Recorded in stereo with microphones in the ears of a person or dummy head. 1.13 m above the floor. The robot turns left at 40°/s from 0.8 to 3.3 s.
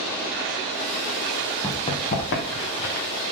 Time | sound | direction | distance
1.6 | running footsteps | 15° left (ahead or behind) | 2.5 m